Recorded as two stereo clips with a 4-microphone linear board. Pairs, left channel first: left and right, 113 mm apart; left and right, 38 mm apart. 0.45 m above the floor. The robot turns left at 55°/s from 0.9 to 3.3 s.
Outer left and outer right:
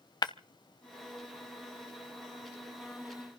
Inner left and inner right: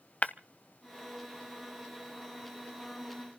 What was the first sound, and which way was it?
Breaking glass, 40° left (ahead or behind).